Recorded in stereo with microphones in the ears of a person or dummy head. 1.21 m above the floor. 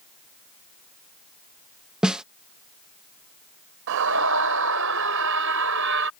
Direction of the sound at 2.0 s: 5° right (ahead or behind).